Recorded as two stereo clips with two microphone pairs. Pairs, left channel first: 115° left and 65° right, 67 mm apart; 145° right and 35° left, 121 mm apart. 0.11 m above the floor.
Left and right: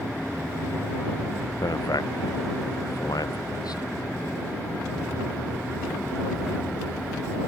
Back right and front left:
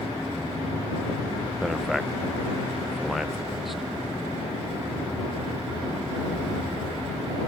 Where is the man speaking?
125° left.